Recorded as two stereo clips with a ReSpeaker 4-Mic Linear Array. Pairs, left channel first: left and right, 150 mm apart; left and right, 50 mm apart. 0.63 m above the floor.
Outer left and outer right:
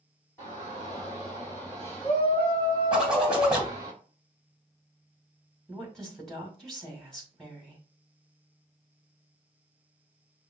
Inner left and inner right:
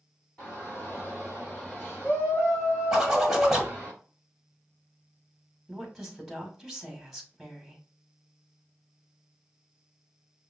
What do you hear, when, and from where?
0.4 s a shout: 20° left (ahead or behind), 2 m; by 3.9 s 25° left (ahead or behind), 4.5 m
2.9 s a zipper: 5° right (ahead or behind), 1.3 m
5.7 s a woman speaking: 5° left (ahead or behind), 2 m